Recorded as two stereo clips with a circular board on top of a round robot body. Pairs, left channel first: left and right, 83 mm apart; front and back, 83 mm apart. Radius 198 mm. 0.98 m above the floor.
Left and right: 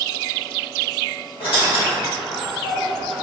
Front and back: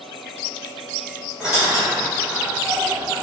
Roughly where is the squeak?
Left.